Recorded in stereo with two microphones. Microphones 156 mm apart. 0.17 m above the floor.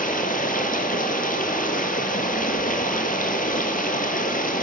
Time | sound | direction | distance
0.0 | running water | 60° left (ahead or behind) | 1.2 m